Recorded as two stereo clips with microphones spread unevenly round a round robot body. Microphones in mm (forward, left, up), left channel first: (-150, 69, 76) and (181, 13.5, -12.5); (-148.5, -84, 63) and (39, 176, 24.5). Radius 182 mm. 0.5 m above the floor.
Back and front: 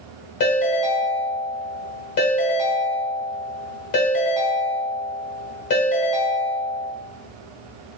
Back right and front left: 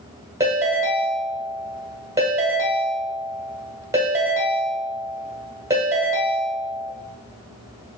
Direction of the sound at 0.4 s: 135° left.